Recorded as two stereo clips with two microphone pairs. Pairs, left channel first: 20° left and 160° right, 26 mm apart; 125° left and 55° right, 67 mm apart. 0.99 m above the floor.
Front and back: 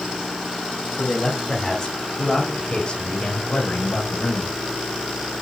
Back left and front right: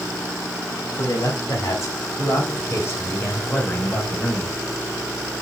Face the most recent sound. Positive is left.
turn(degrees=55)